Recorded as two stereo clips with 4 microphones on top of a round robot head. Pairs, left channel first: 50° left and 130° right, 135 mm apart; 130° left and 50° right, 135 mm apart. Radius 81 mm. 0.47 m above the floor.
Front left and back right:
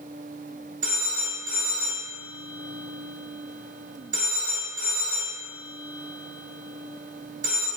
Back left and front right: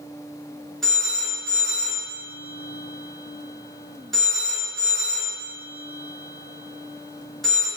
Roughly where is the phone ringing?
Behind right.